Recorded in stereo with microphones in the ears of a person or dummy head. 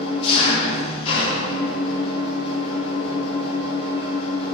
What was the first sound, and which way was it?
An engine running, 30° left (ahead or behind).